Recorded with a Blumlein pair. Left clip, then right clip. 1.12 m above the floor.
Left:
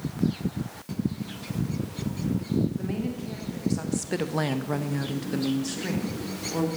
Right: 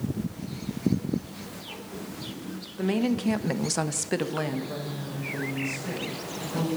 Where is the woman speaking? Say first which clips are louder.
Right 6 dB; 70° right, 1.4 m; by 6.7 s 65° left, 2.5 m.